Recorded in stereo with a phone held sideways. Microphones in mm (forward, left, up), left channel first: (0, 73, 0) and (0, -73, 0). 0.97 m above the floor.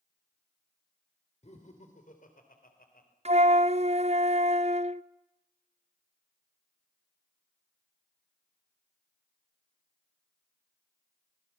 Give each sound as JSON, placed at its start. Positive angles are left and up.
{"t": 1.4, "sound": "laughter", "side_deg": 50, "distance_m": 3.0}
{"t": 3.2, "sound": "a flute", "side_deg": -50, "distance_m": 0.6}